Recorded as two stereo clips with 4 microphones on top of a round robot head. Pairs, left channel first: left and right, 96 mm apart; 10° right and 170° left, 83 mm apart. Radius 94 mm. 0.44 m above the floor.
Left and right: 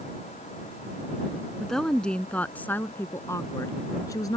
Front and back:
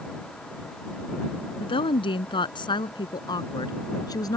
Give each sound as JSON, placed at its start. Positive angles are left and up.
{"t": 1.6, "sound": "a woman speaking", "azimuth_deg": 5}